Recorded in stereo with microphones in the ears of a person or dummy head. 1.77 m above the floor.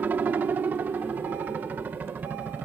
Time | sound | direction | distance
0.0 | a helicopter | 10° right (ahead or behind) | ?